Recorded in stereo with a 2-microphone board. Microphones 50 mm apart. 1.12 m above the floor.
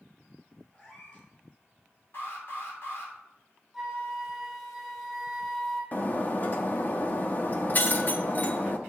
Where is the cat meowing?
25° left (ahead or behind), 4 m.